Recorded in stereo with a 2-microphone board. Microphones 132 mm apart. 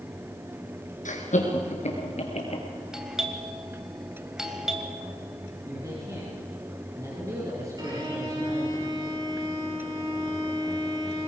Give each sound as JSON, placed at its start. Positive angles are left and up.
{"t": 1.1, "sound": "laughter", "side_deg": 70, "distance_m": 4.0}
{"t": 2.9, "sound": "a doorbell", "side_deg": -5, "distance_m": 2.0}
{"t": 5.7, "sound": "a man speaking", "side_deg": -25, "distance_m": 4.5}
{"t": 7.8, "sound": "a violin", "side_deg": -30, "distance_m": 5.5}